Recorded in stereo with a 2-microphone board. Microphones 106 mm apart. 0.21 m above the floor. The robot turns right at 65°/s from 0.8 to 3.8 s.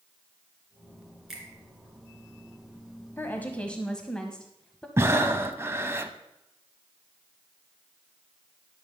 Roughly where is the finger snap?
Centre.